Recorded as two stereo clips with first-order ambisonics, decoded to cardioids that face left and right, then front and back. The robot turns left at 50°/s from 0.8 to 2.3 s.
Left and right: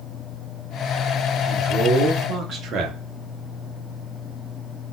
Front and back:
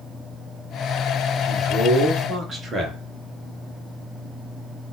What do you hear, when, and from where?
1.5 s a man speaking: 80° right, 0.8 m; by 3.0 s 120° right, 0.8 m